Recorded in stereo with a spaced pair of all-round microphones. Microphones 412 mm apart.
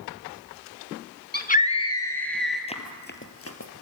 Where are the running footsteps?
15° left (ahead or behind), 2 m; by 3.7 s 40° left (ahead or behind), 2 m.